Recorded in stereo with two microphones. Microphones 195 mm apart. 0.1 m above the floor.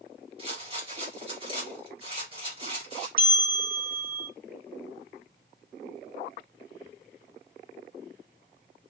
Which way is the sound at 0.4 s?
25° right (ahead or behind).